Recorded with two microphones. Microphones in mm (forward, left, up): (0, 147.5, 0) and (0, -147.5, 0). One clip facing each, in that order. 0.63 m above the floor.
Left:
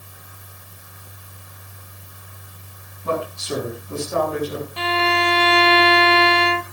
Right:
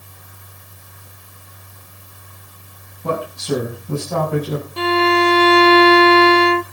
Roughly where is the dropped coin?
I don't hear a dropped coin.